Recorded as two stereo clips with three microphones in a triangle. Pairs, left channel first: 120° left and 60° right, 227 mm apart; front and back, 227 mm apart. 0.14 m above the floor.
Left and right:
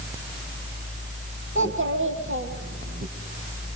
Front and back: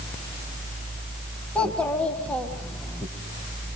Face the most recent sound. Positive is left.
turn(degrees=-85)